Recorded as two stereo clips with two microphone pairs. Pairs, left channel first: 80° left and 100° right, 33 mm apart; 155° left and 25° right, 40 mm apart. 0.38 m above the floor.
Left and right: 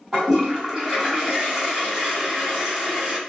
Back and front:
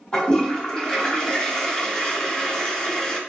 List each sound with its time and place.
0.1 s a toilet flushing: 165° right, 1.2 m